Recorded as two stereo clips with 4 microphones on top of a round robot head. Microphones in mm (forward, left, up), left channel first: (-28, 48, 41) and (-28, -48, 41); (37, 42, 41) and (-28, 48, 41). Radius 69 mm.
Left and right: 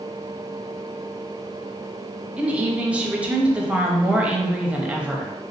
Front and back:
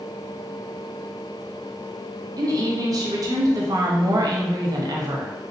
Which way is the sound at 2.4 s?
165° right.